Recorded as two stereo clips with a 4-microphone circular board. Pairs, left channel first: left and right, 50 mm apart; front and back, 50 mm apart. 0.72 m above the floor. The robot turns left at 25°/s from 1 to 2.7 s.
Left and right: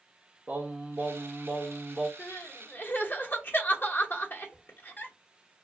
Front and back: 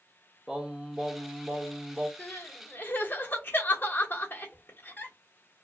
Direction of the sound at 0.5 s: 115° right.